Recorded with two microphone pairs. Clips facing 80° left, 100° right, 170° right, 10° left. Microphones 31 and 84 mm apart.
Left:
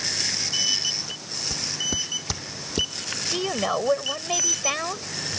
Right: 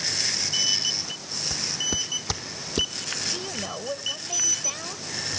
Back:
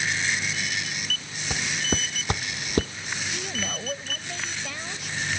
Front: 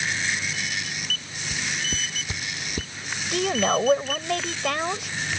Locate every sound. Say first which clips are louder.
1.5 s footsteps: even, back 3 dB; straight behind
3.3 s a woman speaking: left 8 dB, front 10 dB; 25° left